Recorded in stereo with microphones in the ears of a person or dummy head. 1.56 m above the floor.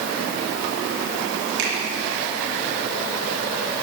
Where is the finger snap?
65° right (ahead or behind), 2.5 m.